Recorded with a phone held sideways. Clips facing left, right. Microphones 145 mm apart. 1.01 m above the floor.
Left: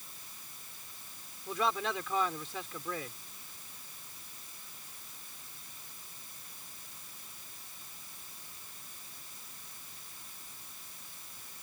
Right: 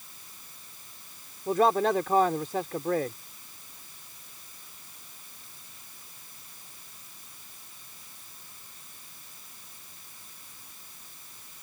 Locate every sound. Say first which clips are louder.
1.5 s a man speaking: right 10 dB; 50° right (ahead or behind)